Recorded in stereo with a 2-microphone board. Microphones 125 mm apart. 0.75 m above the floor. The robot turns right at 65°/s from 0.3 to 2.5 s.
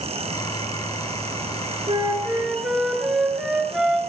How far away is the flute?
About 4 m.